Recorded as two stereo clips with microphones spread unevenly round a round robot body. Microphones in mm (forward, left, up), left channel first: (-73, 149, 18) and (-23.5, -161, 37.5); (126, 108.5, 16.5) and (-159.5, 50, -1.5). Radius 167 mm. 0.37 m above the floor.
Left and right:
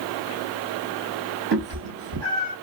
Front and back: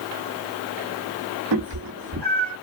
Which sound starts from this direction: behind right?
A cat meowing, at 1.5 s.